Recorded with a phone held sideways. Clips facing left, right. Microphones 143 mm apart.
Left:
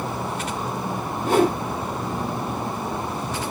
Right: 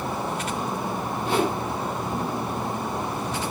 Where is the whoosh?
45° left (ahead or behind), 1.0 m.